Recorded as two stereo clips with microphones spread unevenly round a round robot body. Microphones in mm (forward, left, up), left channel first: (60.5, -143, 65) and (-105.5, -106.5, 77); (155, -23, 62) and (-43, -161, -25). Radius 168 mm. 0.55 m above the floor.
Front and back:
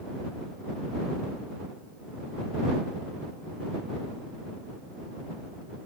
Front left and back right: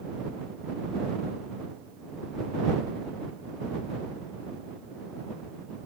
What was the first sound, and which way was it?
Only background noise.